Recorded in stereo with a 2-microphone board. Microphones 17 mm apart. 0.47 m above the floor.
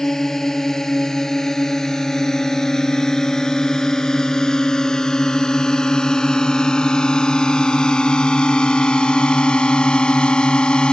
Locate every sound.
0.0 s a drone: 30° left (ahead or behind); by 10.9 s 70° left (ahead or behind)